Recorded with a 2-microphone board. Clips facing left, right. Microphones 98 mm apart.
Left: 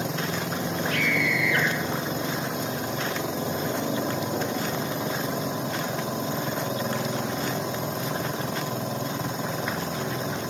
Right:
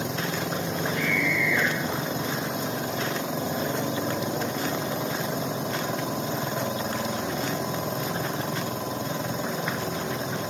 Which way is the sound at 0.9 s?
80° left.